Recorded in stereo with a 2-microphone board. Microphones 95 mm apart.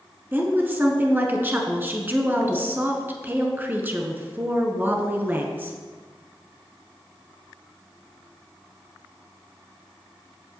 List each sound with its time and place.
0.3 s a woman speaking: 20° right (ahead or behind), 1.5 m